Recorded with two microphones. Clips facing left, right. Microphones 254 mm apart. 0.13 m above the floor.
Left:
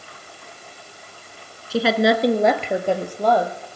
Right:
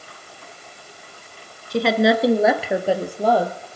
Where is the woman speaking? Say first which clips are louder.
Right 1 dB; 5° left (ahead or behind), 1.1 m; by 3.6 s 10° right (ahead or behind), 3 m.